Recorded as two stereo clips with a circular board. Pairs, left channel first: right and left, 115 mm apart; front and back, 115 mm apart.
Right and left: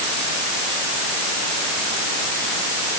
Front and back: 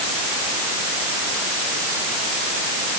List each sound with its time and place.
Only background noise.